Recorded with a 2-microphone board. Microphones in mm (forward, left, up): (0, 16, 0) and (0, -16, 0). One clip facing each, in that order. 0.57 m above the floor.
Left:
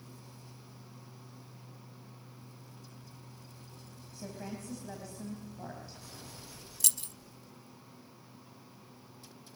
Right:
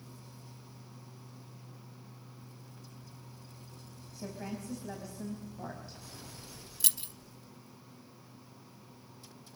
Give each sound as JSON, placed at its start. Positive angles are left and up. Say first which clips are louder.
{"t": 4.1, "sound": "a woman speaking", "louder": "right 2 dB", "side_deg": -10, "distance_m": 4.5}
{"t": 6.8, "sound": "keys jangling", "louder": "left 1 dB", "side_deg": -25, "distance_m": 0.6}